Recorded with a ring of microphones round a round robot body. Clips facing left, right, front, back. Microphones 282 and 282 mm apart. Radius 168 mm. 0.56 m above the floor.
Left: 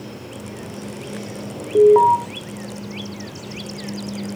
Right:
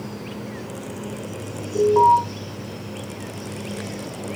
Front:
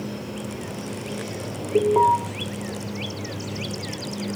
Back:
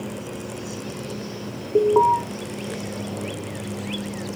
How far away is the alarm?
About 1.0 m.